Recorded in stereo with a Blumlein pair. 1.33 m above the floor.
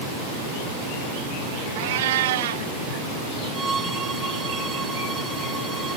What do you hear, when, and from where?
1.8 s a cat meowing: 55° right
3.5 s a violin: 15° right